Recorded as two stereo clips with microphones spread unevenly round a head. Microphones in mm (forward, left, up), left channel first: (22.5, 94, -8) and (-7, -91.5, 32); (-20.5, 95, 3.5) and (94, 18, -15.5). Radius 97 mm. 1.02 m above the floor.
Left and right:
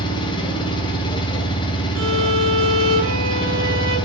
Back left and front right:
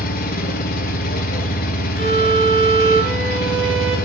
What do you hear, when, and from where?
0.0 s an engine running: 150° left, 2 m
1.9 s a violin: 80° right, 5 m